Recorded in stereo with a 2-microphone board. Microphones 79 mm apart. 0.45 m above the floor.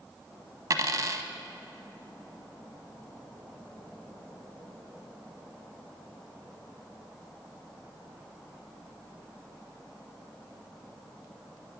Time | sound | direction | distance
0.7 | a dropped coin | 45° right (ahead or behind) | 0.6 m